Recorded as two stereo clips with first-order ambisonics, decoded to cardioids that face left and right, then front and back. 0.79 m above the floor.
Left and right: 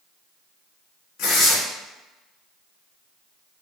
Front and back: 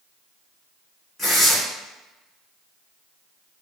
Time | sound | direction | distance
1.2 | tearing paper | 75° left | 1.3 m